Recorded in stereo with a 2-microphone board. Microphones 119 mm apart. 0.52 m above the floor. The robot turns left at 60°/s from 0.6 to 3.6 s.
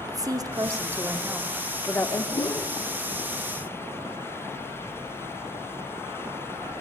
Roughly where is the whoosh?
Left.